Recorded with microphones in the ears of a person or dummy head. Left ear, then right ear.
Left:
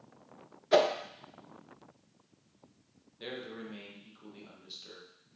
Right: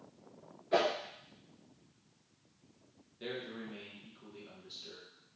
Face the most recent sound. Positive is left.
turn(degrees=20)  # may be behind; listen again after turning